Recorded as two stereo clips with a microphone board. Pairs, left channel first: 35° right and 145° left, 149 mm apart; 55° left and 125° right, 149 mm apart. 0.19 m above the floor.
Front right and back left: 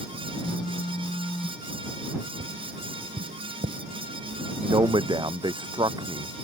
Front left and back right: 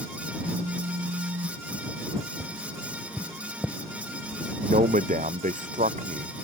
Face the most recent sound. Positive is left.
turn(degrees=-155)